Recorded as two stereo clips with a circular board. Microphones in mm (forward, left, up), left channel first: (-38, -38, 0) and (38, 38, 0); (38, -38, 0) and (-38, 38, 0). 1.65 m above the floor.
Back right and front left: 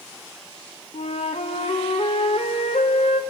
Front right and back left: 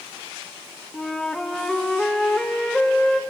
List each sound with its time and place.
0.9 s a flute: 130° right, 1.1 m